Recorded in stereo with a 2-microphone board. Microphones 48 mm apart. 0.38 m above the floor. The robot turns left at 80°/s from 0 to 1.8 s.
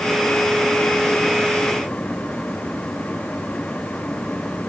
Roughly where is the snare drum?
I don't hear a snare drum.